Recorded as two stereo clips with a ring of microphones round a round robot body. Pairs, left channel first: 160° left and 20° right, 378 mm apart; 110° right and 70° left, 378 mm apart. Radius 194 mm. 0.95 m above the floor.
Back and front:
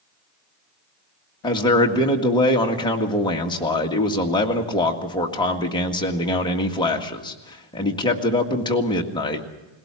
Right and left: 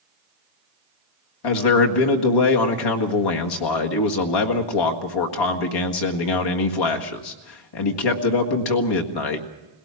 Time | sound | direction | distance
1.4 | a man speaking | 125° right | 1.8 m